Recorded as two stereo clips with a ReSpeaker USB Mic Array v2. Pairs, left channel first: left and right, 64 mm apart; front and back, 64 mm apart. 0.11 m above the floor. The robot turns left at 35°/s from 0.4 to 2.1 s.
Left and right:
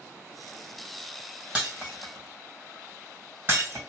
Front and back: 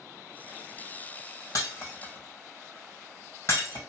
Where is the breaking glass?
20° right, 2 m; by 3.8 s 40° right, 2 m.